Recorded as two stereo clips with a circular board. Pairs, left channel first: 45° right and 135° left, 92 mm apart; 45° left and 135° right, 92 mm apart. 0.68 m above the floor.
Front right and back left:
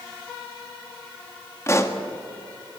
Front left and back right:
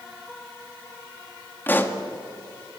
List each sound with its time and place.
1.7 s a pop: 10° right, 1.3 m